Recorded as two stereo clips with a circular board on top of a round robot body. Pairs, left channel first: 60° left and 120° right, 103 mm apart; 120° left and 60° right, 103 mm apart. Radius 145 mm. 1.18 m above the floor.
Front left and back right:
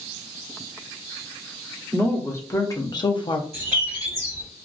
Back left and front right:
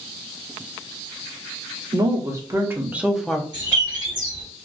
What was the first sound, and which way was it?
A woman speaking, 10° right.